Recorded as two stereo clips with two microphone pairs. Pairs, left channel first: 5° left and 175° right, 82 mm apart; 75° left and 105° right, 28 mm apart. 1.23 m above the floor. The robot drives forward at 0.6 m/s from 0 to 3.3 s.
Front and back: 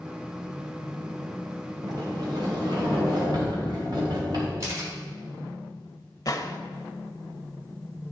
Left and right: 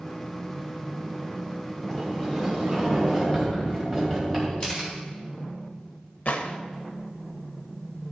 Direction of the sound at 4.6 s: 130° left.